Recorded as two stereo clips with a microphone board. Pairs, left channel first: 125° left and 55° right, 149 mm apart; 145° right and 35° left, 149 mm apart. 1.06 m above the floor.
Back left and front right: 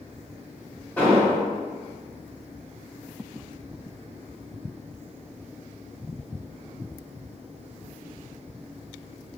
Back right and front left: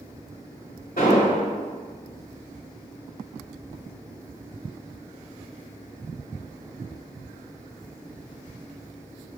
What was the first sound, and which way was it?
An explosion, 155° right.